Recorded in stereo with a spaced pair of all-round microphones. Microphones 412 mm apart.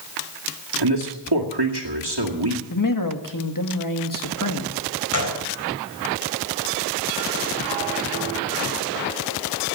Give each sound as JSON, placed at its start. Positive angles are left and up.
{"t": 0.8, "sound": "a man speaking", "side_deg": -75, "distance_m": 2.0}
{"t": 2.7, "sound": "a man speaking", "side_deg": 50, "distance_m": 1.9}
{"t": 5.1, "sound": "a gunshot", "side_deg": 45, "distance_m": 4.0}